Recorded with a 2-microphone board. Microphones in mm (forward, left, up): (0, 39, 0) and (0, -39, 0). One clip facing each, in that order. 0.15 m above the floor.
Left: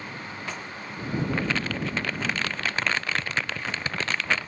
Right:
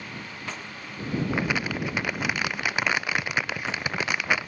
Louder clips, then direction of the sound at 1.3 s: Right 1 dB; 10° right (ahead or behind).